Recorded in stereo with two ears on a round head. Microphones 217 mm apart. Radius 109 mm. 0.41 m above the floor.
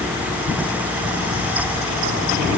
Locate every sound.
Only background noise.